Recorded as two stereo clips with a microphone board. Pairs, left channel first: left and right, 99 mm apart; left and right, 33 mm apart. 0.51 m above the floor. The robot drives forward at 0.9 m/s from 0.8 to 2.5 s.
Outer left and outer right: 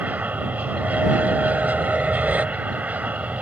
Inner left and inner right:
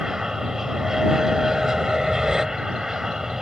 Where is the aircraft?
15° right (ahead or behind).